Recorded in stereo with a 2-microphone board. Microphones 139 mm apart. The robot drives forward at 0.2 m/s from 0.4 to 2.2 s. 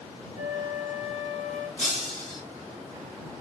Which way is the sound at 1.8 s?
10° left (ahead or behind).